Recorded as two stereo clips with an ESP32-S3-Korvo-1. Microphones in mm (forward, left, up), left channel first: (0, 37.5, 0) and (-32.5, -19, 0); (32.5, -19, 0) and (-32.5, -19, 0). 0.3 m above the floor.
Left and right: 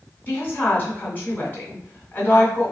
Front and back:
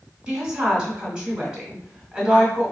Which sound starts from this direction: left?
A woman speaking, at 0.3 s.